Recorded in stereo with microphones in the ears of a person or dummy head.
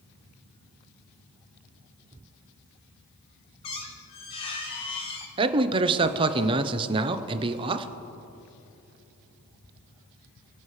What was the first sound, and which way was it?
A squeak, 25° left (ahead or behind).